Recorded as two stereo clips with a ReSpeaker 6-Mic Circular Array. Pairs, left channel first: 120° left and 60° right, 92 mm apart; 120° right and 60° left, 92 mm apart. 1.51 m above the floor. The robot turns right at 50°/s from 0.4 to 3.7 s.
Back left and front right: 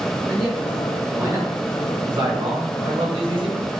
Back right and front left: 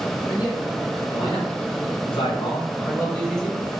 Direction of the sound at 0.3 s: 165° right.